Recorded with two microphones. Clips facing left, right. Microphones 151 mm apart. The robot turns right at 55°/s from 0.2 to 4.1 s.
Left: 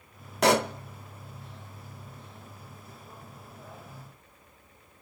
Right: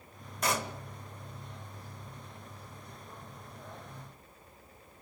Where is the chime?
No chime in this recording.